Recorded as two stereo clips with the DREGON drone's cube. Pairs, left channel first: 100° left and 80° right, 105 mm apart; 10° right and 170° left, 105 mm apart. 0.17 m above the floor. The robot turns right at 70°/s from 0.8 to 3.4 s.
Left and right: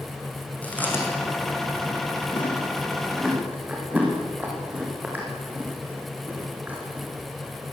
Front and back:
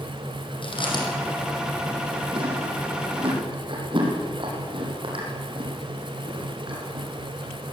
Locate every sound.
0.6 s chewing: 25° left, 7.5 m; by 7.1 s 155° right, 7.5 m